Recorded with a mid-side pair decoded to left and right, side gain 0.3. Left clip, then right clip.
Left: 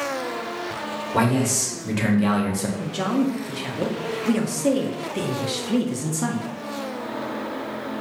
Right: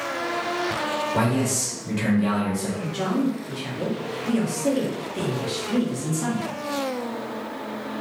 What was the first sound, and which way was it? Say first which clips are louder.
A man speaking: left 2 dB; 65° left.